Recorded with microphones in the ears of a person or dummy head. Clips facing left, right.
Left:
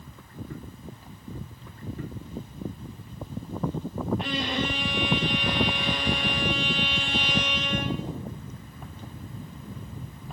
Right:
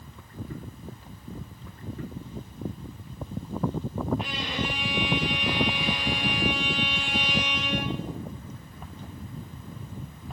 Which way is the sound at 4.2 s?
45° left (ahead or behind).